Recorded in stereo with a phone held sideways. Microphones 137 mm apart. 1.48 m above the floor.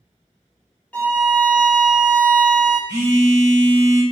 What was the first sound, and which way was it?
A violin, 10° left (ahead or behind).